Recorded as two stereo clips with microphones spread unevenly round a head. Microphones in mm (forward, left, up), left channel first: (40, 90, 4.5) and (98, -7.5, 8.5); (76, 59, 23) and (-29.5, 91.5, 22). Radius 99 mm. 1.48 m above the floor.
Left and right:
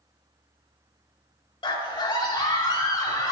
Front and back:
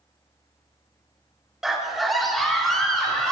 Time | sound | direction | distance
1.6 | a scream | 75° left | 3 m